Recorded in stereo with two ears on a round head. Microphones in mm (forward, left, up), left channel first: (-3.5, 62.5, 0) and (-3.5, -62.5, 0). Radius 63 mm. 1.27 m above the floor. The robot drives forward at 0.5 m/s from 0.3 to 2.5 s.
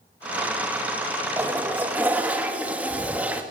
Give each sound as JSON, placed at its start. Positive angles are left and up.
{"t": 1.4, "sound": "a toilet flushing", "side_deg": -15, "distance_m": 2.0}